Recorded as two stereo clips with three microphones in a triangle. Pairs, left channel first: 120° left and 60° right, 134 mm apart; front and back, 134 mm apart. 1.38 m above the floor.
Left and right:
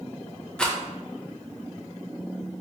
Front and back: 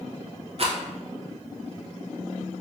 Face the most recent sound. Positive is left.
turn(degrees=-160)